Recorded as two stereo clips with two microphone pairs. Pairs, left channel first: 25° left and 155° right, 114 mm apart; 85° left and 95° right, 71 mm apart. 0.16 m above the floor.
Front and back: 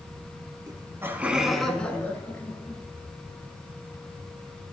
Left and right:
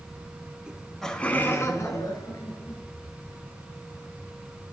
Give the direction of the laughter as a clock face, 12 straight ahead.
5 o'clock.